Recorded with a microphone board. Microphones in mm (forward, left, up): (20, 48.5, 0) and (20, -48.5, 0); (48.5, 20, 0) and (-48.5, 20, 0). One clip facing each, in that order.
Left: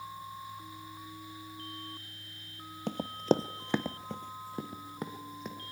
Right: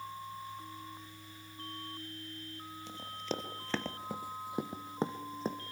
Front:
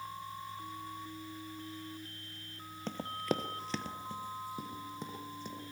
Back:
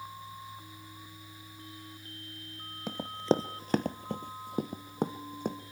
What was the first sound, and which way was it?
Running footsteps, 100° left.